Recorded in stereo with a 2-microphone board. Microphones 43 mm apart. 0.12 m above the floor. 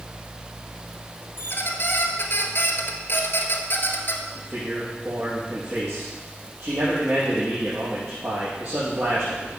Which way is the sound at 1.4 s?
50° left (ahead or behind).